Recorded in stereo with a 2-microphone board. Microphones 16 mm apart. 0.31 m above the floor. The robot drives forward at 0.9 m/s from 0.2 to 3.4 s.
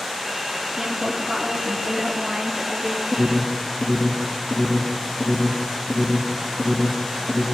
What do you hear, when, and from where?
0.8 s a woman speaking: 65° right (ahead or behind), 3.5 m; by 3.0 s 45° right (ahead or behind), 4.5 m
3.1 s an alarm: 35° right (ahead or behind), 4 m; by 7.4 s 30° right (ahead or behind), 4.5 m